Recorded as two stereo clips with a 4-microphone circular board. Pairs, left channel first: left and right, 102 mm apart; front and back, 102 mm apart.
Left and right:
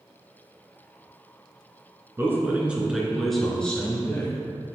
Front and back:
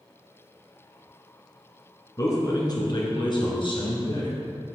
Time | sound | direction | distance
2.2 | a man speaking | 35° right | 1.5 m